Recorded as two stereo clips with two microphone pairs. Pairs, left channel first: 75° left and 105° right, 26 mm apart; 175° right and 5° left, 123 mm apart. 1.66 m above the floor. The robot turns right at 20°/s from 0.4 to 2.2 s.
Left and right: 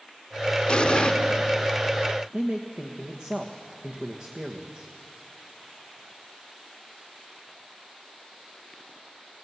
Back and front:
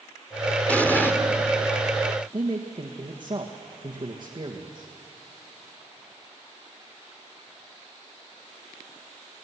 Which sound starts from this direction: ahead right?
A man speaking, at 2.3 s.